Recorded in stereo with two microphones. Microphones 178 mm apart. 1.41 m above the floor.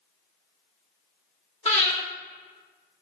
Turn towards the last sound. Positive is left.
turn(degrees=35)  # may be behind; listen again after turning